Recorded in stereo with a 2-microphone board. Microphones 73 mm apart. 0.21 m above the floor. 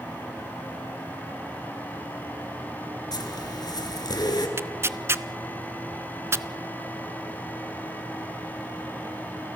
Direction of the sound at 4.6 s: 35° right (ahead or behind).